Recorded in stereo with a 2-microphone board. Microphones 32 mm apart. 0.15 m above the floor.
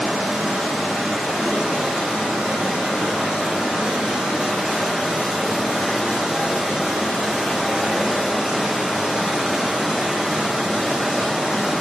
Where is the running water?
25° right (ahead or behind), 1.5 m.